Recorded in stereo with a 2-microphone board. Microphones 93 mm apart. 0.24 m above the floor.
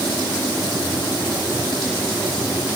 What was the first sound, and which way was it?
Only background noise.